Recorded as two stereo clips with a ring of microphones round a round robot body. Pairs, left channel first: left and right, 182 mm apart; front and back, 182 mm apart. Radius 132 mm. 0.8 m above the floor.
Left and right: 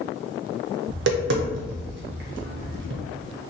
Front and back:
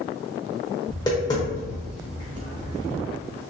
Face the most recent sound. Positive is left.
turn(degrees=-75)